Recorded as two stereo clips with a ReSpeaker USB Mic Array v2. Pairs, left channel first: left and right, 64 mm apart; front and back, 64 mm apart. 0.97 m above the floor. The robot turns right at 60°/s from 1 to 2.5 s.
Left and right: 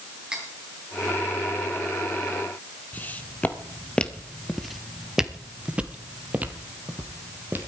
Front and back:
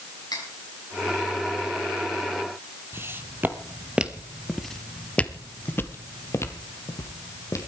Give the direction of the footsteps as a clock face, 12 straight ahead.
7 o'clock.